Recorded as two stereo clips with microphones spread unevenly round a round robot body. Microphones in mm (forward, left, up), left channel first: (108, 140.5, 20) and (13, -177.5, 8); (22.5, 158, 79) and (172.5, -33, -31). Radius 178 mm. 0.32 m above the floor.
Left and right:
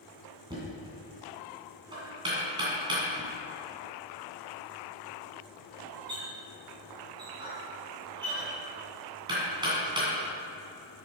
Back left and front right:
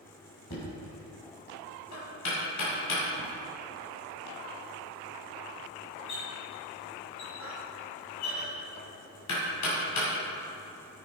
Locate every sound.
0.5 s knocking: 175° left, 2 m